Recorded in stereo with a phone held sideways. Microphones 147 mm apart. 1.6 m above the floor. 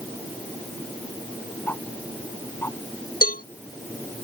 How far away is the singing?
I don't hear singing.